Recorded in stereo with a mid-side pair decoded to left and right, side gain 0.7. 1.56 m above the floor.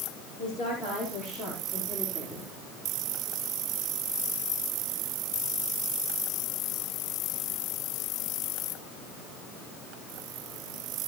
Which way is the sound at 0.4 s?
45° left.